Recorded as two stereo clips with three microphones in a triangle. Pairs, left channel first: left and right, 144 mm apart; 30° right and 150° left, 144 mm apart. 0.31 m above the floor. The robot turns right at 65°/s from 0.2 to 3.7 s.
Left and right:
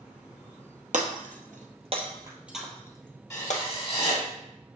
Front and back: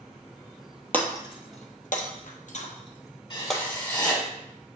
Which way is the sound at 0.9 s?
110° right.